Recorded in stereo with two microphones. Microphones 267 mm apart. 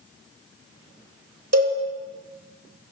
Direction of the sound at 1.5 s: 65° right (ahead or behind).